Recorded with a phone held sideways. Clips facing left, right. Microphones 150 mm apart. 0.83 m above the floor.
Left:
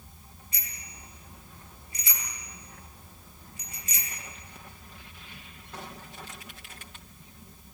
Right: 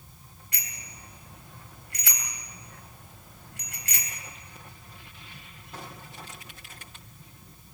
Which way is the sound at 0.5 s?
85° right.